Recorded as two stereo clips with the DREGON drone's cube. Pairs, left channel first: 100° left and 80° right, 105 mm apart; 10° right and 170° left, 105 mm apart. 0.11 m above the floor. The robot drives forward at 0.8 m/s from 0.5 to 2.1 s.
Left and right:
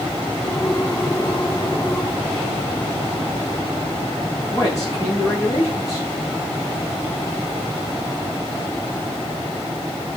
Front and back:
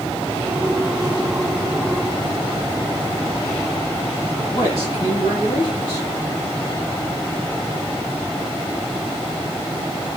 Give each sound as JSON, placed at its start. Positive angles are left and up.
{"t": 4.5, "sound": "a man speaking", "azimuth_deg": 45, "distance_m": 6.0}